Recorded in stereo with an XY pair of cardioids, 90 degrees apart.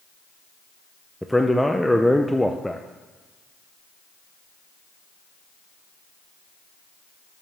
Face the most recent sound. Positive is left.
turn(degrees=5)